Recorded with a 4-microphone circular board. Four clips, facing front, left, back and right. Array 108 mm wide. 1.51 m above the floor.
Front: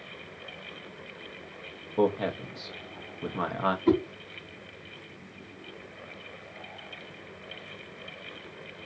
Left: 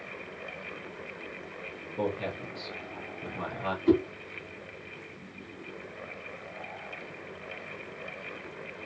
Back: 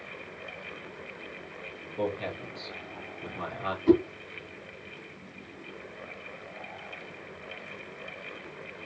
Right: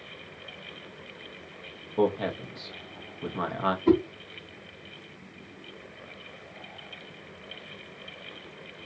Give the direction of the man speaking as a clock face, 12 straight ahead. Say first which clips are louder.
Right 6 dB, front 6 dB; 1 o'clock.